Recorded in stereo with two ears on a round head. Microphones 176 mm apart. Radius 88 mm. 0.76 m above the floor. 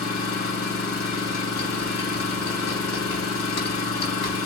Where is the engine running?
85° left, 3 m.